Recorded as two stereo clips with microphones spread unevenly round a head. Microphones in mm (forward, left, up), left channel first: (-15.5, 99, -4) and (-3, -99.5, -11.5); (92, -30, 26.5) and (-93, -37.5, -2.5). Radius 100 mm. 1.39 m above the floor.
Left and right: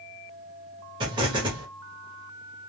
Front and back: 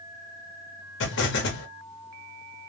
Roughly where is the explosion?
Ahead.